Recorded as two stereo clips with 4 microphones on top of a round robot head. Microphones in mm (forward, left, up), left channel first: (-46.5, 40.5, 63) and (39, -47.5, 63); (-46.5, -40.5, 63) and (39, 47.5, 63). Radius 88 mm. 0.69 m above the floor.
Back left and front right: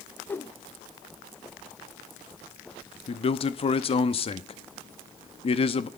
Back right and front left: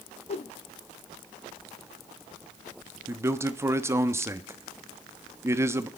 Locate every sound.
0.3 s a whoosh: 155° right, 0.7 m
3.1 s a man speaking: 110° left, 1.0 m